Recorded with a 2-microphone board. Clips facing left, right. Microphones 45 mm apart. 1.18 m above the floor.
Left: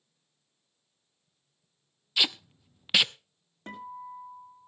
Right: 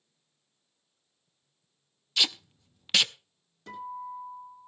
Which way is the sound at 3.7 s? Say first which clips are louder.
Right 3 dB; 45° left (ahead or behind).